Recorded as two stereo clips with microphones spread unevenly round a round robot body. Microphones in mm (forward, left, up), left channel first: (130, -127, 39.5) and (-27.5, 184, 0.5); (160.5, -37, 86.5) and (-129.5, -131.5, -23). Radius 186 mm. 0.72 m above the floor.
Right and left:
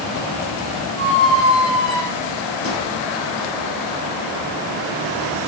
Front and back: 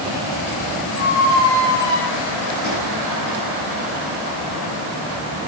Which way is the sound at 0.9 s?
5° right.